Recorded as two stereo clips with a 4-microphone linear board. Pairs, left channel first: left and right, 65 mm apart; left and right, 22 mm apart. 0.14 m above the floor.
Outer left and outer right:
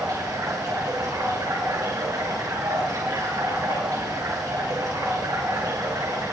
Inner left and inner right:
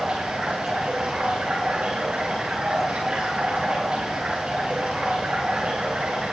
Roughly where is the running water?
Right.